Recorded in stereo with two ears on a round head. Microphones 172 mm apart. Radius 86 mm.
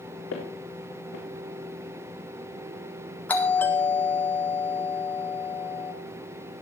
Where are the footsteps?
70° left (ahead or behind), 4 m.